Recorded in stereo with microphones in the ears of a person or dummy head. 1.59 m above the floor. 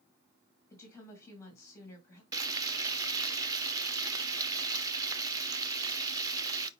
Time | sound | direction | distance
0.7 | a woman speaking | 15° left (ahead or behind) | 3 m
2.3 | frying | 25° right (ahead or behind) | 0.7 m